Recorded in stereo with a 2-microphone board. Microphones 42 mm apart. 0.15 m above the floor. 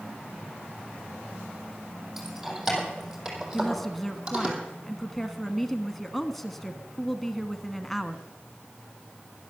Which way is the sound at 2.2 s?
10° right (ahead or behind).